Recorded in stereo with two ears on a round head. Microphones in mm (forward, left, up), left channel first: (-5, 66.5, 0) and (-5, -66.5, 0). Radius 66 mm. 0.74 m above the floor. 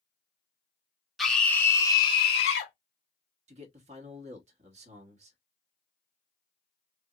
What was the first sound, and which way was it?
A scream, centre (ahead or behind).